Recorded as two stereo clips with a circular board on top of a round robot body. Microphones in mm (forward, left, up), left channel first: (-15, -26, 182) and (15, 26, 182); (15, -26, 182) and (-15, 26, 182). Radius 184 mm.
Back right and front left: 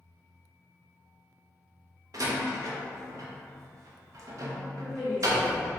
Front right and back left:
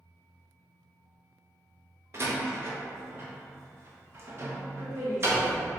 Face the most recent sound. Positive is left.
turn(degrees=140)